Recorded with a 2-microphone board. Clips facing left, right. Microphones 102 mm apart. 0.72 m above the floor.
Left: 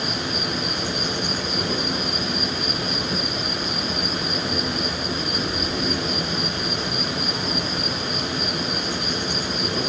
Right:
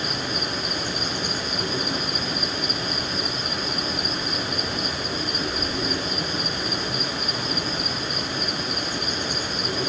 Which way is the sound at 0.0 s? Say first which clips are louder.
Left 2 dB; 75° left (ahead or behind).